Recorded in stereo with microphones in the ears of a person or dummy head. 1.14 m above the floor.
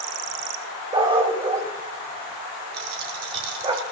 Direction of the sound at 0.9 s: 25° right (ahead or behind).